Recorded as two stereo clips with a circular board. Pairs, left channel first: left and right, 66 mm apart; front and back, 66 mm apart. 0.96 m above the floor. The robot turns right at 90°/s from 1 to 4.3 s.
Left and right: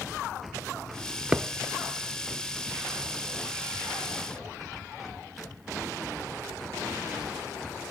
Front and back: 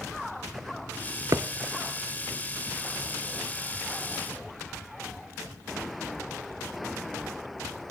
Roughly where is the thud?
Behind.